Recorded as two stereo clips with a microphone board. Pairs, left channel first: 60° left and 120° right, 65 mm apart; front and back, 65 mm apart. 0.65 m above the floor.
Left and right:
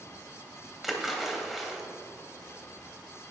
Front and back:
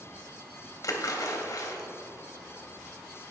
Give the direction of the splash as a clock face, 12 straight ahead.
1 o'clock.